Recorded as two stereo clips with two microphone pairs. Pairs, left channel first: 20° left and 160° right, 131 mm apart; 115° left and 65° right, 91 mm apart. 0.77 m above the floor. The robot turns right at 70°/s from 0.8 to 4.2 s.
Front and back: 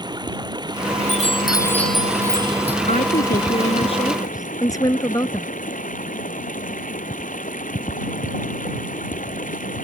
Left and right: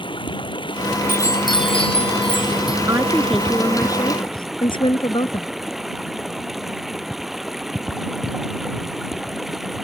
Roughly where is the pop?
No pop in this recording.